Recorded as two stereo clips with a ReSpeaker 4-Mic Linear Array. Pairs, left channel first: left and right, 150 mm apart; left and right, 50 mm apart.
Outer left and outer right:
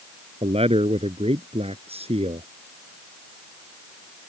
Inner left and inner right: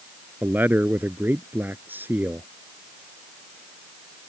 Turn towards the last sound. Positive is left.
turn(degrees=-40)  # may be behind; listen again after turning